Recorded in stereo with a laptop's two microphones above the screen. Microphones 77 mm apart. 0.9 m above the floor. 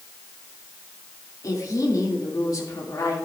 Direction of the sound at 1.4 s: 50° left (ahead or behind).